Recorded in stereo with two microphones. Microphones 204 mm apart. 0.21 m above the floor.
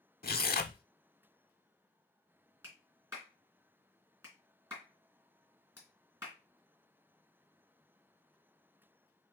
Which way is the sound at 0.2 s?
50° left (ahead or behind).